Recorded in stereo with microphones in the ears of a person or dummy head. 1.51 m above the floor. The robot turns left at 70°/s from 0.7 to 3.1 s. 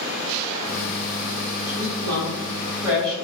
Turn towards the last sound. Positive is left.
turn(degrees=10)  # may be behind; listen again after turning